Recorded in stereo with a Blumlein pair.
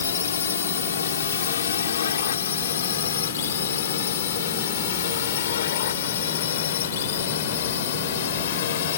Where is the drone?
70° left; by 9.0 s 60° left.